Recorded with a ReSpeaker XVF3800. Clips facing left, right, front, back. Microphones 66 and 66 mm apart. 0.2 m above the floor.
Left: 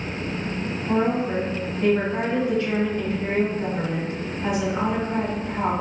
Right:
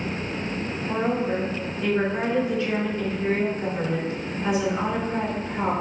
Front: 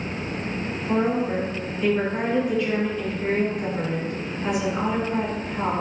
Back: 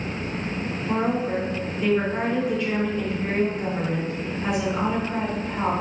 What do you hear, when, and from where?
0.9 s a woman speaking: 95° left, 1.9 m